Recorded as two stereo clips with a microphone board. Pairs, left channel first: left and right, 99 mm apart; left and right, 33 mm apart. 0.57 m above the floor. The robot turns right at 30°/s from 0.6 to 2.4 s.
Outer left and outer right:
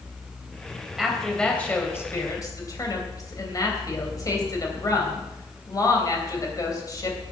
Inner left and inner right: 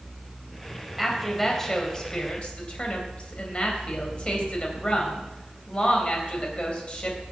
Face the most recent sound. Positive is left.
turn(degrees=35)  # may be behind; listen again after turning